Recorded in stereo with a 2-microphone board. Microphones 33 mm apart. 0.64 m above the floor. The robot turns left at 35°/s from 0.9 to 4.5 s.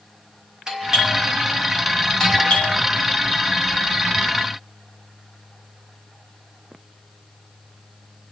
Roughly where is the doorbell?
Right.